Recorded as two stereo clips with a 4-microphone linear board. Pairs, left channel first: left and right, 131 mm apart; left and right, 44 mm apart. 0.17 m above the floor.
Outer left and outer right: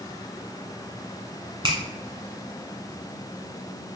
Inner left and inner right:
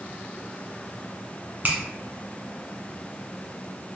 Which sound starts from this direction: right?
A finger snap, at 1.6 s.